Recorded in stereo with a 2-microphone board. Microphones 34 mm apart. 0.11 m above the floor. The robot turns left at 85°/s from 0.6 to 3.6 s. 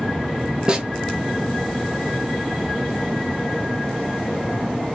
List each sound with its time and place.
0.7 s a snare drum: 25° right (ahead or behind), 0.8 m; by 0.9 s 10° right (ahead or behind), 0.8 m